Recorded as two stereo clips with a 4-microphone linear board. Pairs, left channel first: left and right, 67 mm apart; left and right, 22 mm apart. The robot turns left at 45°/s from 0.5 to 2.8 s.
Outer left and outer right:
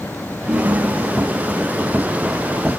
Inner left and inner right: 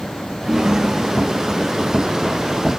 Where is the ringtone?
130° right, 1.6 m; by 1.7 s 170° left, 1.6 m.